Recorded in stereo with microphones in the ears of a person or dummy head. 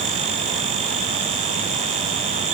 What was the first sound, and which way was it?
Only background noise.